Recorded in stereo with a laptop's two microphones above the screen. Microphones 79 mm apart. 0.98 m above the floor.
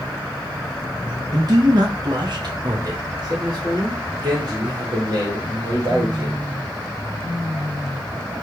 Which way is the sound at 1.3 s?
40° right (ahead or behind).